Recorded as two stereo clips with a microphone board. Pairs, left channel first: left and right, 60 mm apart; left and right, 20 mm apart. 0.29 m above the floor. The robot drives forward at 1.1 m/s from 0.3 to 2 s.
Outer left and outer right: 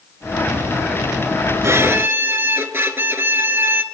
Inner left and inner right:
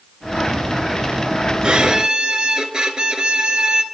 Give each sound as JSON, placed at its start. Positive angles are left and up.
{"t": 1.6, "sound": "a violin", "side_deg": -50, "distance_m": 1.5}